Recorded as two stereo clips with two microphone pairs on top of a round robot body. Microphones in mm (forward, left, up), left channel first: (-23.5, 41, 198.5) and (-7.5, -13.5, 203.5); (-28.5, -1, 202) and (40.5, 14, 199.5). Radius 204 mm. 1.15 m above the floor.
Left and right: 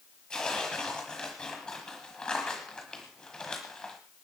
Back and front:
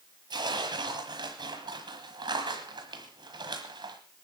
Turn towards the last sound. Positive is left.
turn(degrees=25)